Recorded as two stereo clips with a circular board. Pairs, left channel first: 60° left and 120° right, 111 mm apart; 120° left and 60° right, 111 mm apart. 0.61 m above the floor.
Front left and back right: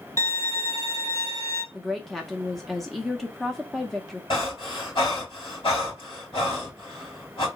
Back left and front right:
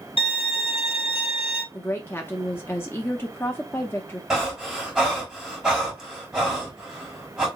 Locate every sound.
0.2 s a violin: 120° left, 1.9 m
1.7 s a woman speaking: 145° left, 0.7 m
4.3 s breathing: 25° left, 2.5 m